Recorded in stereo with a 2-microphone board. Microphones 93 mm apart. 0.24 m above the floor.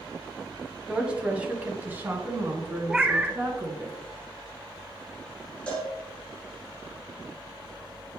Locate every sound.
0.9 s a woman speaking: 10° right (ahead or behind), 1.1 m; by 3.9 s 30° right (ahead or behind), 2.5 m
2.9 s a cat meowing: 10° right (ahead or behind), 0.5 m
5.7 s a cowbell: 10° left (ahead or behind), 3.5 m